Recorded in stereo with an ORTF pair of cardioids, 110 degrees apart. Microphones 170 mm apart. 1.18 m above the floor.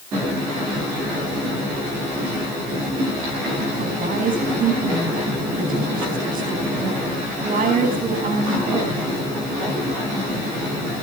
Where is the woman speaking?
55° right, 10 m.